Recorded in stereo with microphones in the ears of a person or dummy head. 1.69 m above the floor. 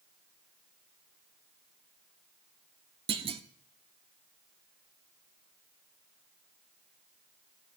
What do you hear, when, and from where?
3.1 s a clunk: 25° right (ahead or behind), 0.8 m